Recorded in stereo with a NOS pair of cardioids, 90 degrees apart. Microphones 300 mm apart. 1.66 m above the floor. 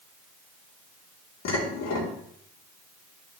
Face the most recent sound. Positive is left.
turn(degrees=65)